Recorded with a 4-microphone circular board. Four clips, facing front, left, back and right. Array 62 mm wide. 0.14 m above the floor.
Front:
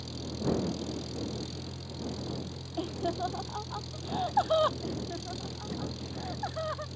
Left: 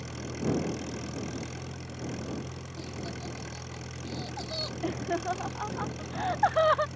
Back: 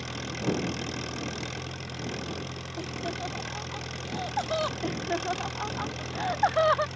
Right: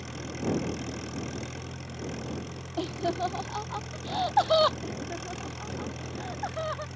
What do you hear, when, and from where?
0.0 s an engine running: straight behind
2.8 s laughter: 70° right
4.8 s laughter: 140° left